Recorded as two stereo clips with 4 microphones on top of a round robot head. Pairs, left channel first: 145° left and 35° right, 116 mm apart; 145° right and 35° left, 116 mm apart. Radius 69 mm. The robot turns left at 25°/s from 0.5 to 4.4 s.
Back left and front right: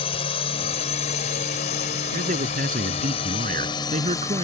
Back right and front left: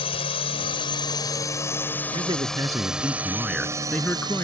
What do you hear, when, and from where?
0.0 s a drone: straight behind; by 4.4 s 80° left
2.1 s a man speaking: 20° right; by 4.4 s 75° right